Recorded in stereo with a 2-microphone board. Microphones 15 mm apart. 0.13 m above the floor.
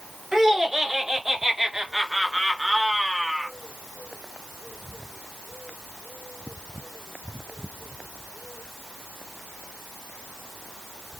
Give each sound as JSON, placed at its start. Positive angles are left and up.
{"t": 0.3, "sound": "laughter", "side_deg": -35, "distance_m": 2.5}